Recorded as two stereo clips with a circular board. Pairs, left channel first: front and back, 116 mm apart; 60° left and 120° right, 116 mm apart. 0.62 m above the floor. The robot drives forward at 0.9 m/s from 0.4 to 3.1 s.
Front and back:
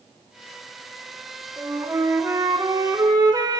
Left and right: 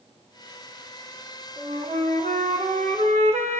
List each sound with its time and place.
1.6 s a flute: 105° right, 3 m; by 3.6 s 125° right, 4 m